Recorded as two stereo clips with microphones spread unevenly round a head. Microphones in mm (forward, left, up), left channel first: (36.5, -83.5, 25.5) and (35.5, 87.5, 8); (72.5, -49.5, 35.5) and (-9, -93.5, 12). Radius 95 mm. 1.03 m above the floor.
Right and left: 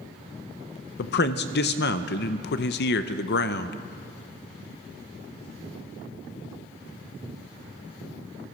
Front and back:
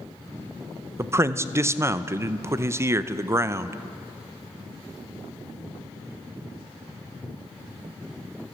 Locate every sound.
1.0 s a man speaking: 105° right, 0.7 m